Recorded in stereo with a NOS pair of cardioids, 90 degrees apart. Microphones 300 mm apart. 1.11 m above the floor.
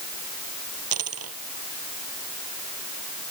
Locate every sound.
0.9 s a dropped coin: 50° right